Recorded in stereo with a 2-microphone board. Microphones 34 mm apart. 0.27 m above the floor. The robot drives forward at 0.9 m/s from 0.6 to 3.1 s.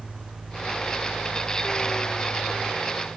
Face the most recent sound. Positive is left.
No sound to turn to.